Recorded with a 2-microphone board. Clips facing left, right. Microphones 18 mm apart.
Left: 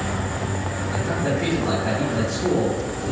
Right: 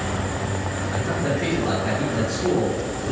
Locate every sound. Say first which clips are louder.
0.9 s a man speaking: left 1 dB; 10° left (ahead or behind), 2 m